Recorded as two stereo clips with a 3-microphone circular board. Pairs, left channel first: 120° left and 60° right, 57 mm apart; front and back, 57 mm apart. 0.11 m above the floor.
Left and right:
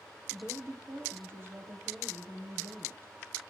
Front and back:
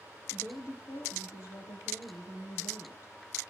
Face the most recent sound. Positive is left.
turn(degrees=-15)